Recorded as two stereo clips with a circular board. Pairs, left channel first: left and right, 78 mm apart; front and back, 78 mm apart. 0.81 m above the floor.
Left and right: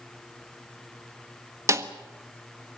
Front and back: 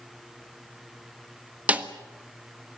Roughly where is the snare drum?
Behind right.